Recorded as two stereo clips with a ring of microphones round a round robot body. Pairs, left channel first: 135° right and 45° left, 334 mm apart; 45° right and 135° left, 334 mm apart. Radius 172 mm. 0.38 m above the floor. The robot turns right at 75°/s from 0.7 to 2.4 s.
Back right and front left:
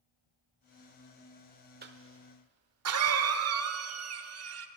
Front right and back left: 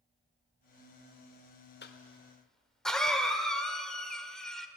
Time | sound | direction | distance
1.8 | a cough | straight ahead | 1.2 m